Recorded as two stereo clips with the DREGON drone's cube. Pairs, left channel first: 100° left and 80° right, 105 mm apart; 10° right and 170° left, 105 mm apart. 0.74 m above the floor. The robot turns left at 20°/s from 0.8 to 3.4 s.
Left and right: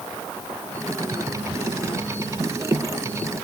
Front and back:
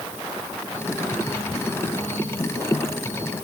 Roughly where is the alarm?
I don't hear an alarm.